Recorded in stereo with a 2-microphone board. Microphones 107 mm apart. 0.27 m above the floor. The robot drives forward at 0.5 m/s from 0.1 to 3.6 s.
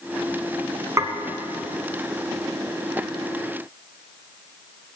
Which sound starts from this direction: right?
Dishes clattering, at 1.0 s.